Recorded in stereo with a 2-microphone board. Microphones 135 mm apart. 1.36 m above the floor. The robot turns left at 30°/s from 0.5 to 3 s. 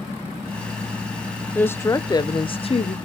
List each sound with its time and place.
1.6 s a woman speaking: 165° left, 0.6 m; by 3.0 s 125° left, 0.6 m